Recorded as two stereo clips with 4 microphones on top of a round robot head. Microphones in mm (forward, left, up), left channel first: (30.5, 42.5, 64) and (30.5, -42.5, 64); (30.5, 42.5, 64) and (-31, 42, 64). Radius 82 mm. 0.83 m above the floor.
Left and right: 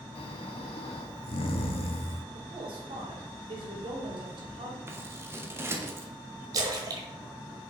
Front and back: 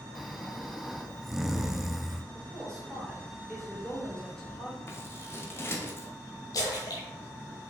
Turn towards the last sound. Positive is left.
turn(degrees=-45)